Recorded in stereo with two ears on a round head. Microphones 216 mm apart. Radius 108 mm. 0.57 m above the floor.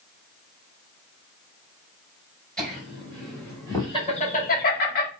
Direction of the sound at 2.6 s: Centre (ahead or behind).